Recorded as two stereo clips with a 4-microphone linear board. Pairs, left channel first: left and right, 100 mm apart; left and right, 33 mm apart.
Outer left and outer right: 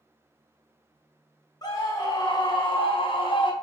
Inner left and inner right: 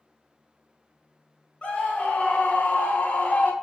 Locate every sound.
1.6 s a scream: 35° left (ahead or behind), 1.5 m; by 3.5 s 50° left (ahead or behind), 0.9 m